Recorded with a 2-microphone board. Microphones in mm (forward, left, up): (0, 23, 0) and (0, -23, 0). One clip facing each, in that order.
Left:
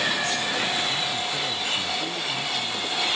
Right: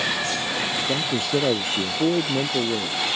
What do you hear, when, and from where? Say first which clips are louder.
0.8 s a man speaking: right 2 dB; 75° right (ahead or behind)